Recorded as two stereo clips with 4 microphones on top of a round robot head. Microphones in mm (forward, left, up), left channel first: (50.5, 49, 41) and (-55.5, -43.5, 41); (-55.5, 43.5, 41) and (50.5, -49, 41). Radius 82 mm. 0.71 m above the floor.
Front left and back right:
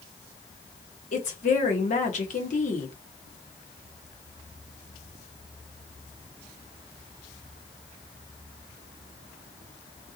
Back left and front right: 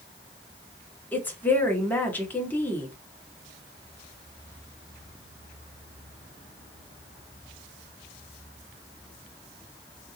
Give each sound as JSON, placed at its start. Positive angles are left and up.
{"t": 1.1, "sound": "a woman speaking", "azimuth_deg": 65, "distance_m": 1.5}